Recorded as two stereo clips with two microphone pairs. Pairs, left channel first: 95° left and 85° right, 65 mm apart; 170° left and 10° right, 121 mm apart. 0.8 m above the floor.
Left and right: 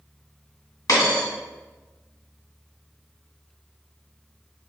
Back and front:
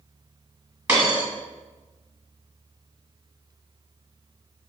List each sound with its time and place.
0.9 s a dropped coin: 70° left, 1.7 m